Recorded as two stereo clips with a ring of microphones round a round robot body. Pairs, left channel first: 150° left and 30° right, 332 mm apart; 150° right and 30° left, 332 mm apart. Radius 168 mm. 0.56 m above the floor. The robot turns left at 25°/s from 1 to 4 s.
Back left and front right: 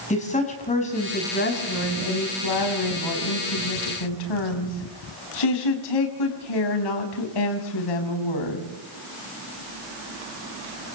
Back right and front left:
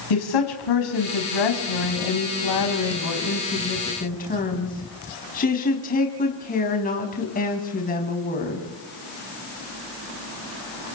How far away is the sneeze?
I don't hear a sneeze.